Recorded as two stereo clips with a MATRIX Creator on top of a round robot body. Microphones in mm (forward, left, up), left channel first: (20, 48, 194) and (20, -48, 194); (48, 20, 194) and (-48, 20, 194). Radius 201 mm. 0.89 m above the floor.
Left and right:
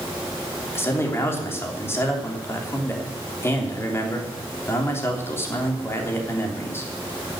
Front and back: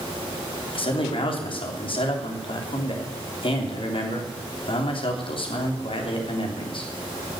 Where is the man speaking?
25° left, 3.5 m.